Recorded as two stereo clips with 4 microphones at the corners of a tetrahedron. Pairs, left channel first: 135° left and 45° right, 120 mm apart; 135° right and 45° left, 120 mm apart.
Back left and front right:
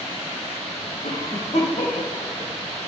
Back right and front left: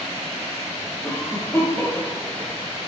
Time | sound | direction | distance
1.0 | a cough | 155° left | 5 m